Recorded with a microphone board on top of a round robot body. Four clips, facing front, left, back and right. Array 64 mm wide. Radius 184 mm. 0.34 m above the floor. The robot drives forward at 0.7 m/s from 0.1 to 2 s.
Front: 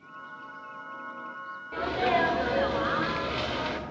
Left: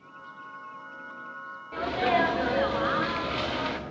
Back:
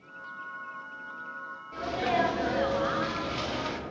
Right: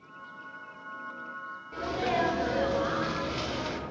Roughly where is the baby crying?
I don't hear a baby crying.